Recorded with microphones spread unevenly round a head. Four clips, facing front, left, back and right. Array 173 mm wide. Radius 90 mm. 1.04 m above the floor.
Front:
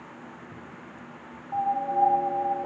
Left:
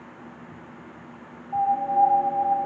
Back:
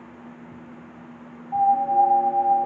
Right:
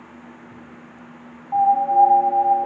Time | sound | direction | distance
1.5 | a piano | 125° right | 0.9 m